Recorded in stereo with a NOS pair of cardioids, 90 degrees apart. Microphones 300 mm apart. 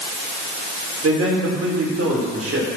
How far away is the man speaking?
About 6 m.